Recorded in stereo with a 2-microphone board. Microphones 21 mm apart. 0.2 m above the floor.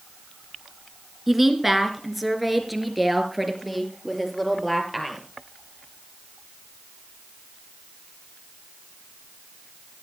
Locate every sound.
1.3 s a woman speaking: 15° right (ahead or behind), 3 m; by 5.2 s 5° right (ahead or behind), 5.5 m